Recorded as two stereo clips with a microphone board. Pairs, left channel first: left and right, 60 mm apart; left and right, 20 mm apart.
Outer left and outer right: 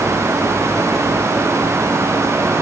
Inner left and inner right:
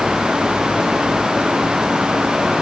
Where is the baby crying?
No baby crying in this recording.